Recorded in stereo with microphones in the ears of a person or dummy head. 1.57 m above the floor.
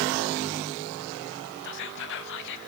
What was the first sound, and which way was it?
Whispering, 65° left (ahead or behind).